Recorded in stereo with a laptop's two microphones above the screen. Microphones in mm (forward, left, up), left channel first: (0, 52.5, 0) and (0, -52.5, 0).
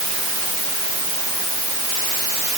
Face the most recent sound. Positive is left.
No sound to turn to.